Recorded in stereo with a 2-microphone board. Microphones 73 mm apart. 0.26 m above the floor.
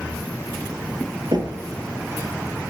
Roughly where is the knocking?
Right.